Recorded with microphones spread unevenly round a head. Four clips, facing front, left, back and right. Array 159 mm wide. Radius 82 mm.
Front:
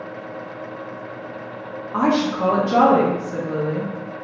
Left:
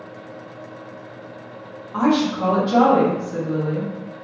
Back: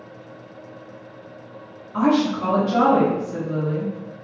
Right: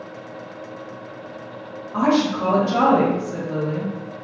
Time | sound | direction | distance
1.9 | a woman speaking | 5° left | 1.8 m